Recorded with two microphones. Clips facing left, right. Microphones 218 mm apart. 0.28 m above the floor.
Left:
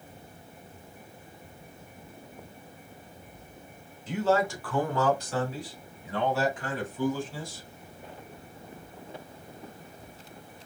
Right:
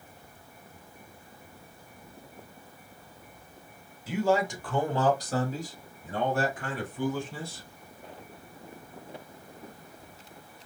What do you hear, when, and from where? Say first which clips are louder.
4.1 s a man speaking: even; 5° right (ahead or behind), 1.2 m; by 7.6 s 65° right (ahead or behind), 2.5 m